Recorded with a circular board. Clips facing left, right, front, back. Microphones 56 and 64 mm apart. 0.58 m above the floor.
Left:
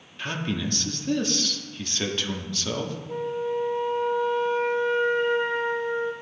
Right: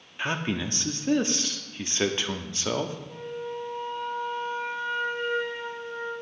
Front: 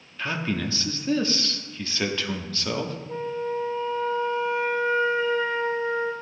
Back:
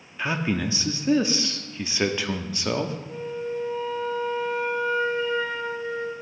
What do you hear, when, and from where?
0.2 s a man speaking: 125° right, 0.6 m
3.1 s a flute: 50° left, 1.0 m